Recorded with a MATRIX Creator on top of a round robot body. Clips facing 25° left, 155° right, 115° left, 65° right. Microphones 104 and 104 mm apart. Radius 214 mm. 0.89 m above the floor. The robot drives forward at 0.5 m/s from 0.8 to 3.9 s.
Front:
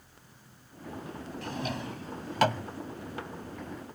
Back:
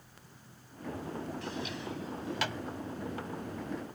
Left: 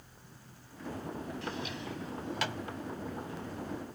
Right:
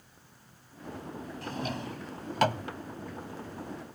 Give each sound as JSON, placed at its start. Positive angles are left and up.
{"t": 1.4, "sound": "a drawer", "azimuth_deg": -20}